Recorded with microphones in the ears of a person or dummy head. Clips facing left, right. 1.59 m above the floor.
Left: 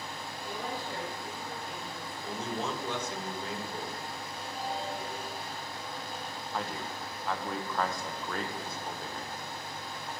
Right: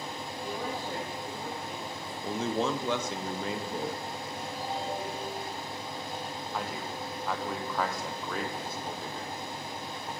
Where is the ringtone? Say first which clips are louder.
Right 1 dB; 70° right (ahead or behind), 5.5 m.